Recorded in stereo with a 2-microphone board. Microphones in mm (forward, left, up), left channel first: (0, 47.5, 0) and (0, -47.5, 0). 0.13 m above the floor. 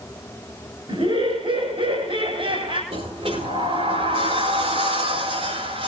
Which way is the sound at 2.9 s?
85° right.